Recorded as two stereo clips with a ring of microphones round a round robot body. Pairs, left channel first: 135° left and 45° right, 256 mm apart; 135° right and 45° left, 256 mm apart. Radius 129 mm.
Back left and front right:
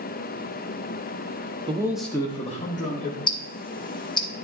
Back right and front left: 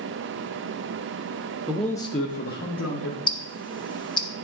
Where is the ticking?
Straight behind, 0.7 m.